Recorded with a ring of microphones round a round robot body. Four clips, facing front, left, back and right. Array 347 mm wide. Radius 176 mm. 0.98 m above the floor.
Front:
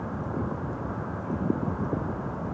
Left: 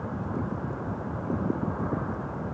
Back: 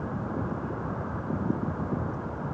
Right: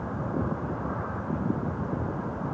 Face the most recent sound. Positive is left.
No sound to turn to.